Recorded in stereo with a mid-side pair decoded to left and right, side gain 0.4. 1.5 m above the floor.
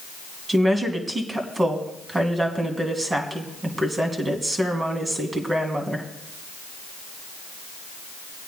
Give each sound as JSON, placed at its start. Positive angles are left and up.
{"t": 0.5, "sound": "a woman speaking", "azimuth_deg": -30, "distance_m": 2.5}